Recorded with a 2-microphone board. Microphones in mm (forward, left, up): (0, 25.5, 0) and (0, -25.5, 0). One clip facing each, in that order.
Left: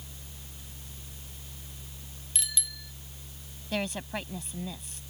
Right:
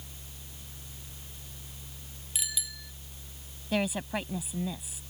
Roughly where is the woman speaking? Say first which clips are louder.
Right 3 dB; centre.